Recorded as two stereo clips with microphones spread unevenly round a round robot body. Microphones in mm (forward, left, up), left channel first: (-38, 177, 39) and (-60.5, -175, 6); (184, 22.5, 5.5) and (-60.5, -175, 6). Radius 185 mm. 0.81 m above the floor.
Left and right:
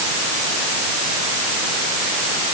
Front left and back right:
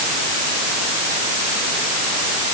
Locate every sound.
Only background noise.